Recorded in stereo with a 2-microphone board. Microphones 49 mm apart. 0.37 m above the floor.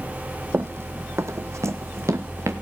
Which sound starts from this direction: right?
Running footsteps, at 0.5 s.